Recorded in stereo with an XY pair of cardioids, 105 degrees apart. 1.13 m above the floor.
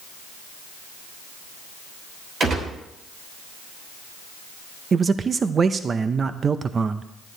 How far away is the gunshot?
About 3 m.